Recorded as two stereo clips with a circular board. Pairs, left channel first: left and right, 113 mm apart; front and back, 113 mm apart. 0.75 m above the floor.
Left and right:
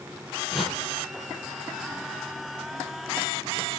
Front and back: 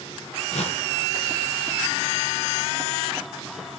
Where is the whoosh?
5° right, 5 m.